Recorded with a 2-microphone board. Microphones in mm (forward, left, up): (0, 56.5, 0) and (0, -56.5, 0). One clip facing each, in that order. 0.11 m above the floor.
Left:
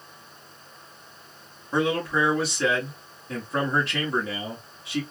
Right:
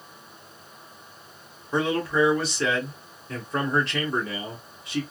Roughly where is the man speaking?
Centre.